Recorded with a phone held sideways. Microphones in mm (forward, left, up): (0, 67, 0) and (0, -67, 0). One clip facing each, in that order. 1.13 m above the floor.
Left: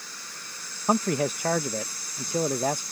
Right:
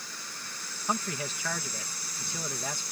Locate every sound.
0.9 s a man speaking: 50° left (ahead or behind)